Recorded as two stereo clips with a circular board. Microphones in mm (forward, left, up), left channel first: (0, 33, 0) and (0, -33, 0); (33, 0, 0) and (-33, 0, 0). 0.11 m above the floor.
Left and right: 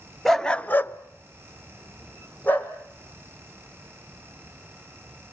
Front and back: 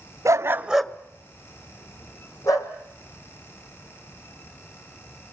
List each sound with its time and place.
0.2 s a dog barking: 175° left, 1.0 m; by 2.7 s 25° left, 3 m